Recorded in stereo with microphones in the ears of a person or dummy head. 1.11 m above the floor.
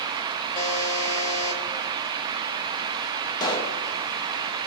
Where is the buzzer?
25° left (ahead or behind), 1.0 m.